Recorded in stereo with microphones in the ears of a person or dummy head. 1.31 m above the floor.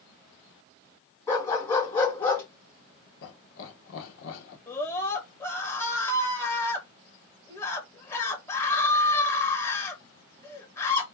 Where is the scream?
20° left (ahead or behind), 1.9 m.